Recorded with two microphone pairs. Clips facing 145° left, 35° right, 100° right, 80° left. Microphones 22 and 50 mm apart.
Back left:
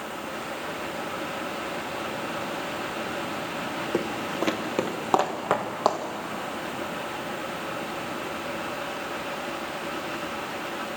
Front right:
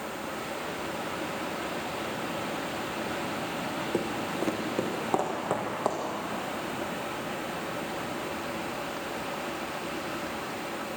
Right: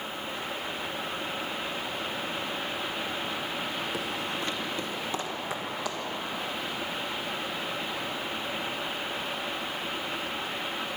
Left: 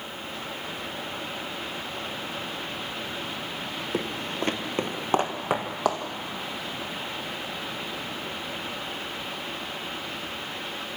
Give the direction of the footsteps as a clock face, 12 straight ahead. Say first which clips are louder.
Back left 3 dB, left 2 dB; 8 o'clock.